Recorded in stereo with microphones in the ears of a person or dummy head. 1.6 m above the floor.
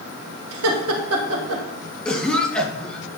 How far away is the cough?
About 2 m.